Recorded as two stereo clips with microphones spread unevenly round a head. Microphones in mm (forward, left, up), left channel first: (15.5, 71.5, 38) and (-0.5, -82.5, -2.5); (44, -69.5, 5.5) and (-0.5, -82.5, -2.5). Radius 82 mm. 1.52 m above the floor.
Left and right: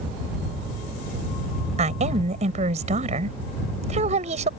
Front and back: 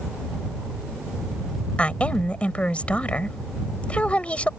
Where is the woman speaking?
45° right.